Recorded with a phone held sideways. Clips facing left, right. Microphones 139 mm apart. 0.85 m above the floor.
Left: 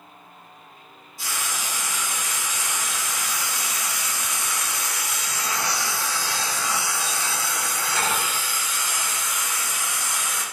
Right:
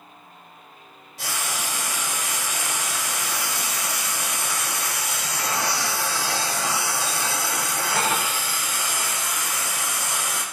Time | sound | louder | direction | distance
1.2 | frying | right 2 dB | 80° right | 4 m